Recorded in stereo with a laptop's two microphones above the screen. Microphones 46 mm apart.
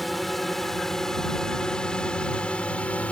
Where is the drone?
Centre (ahead or behind); by 3.1 s 30° left (ahead or behind).